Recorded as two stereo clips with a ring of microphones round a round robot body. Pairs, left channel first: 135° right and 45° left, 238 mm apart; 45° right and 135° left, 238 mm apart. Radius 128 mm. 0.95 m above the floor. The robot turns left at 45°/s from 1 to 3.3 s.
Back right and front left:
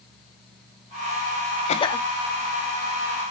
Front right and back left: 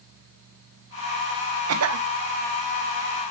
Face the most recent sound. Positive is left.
turn(degrees=90)